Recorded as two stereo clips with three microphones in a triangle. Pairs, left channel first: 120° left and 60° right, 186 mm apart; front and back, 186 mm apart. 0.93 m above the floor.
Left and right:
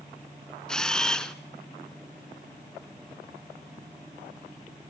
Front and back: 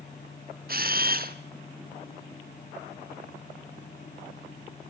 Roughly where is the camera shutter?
Behind right.